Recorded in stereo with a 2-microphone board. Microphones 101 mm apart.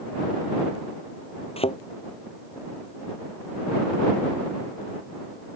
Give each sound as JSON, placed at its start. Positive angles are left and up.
{"t": 1.6, "sound": "a thud", "side_deg": 70}